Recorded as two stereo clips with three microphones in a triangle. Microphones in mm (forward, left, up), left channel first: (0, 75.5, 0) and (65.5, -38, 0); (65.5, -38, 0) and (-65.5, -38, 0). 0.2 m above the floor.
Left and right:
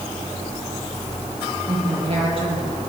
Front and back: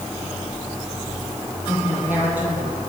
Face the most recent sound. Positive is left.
turn(degrees=-105)